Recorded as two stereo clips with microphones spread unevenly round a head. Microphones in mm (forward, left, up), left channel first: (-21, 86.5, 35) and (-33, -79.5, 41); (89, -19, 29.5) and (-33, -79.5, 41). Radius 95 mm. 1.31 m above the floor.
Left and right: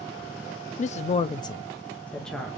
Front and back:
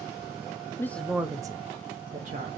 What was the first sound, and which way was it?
A woman speaking, 90° left.